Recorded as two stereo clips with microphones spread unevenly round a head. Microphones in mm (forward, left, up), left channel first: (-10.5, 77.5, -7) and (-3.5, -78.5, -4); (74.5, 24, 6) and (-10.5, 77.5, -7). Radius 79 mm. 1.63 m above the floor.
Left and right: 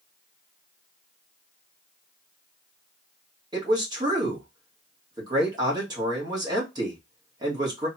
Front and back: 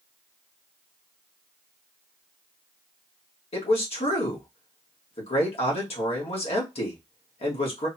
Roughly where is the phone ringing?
I don't hear a phone ringing.